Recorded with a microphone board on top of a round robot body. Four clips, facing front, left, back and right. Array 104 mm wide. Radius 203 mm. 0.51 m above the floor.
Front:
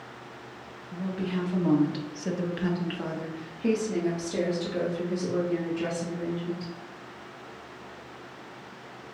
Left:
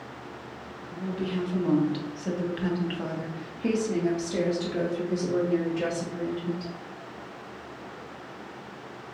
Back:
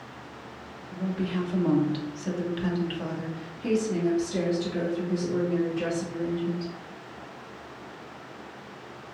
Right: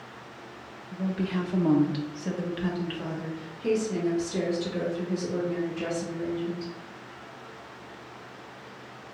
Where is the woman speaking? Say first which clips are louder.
Right 1 dB, back 1 dB; 80° right, 1.5 m; by 6.7 s 70° left, 3 m.